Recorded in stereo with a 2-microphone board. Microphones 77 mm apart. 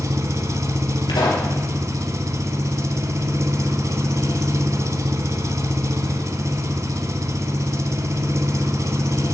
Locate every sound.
0.0 s an engine running: 45° right (ahead or behind), 0.8 m
1.1 s a pop: 85° left, 3.5 m